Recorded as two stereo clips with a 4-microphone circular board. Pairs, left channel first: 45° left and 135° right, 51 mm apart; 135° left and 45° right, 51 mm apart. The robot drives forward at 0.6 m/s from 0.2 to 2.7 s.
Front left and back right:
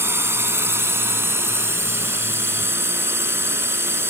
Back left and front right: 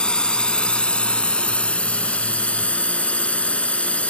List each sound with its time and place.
0.0 s a drone: 155° right; by 4.1 s 165° right